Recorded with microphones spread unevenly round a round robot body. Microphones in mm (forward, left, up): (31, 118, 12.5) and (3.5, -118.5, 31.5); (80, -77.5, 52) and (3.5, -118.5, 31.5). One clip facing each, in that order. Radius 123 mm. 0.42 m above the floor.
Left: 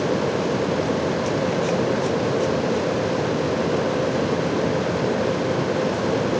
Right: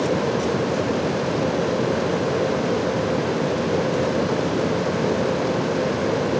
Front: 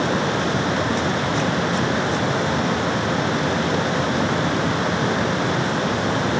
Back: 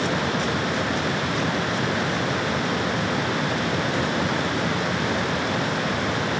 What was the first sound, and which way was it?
Only background noise.